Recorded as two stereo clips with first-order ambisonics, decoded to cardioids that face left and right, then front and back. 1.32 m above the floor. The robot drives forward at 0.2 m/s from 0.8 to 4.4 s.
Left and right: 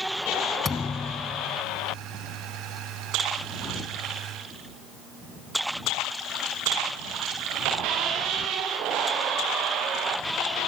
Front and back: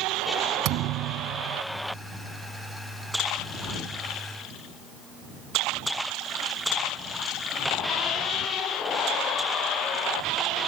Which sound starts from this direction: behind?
A thud, at 0.7 s.